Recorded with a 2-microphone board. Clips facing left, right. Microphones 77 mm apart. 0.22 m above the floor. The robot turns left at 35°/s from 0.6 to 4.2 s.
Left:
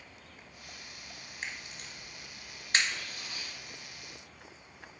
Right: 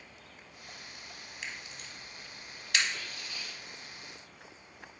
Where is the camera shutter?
40° left (ahead or behind), 1.0 m; by 2.9 s 35° left (ahead or behind), 1.0 m.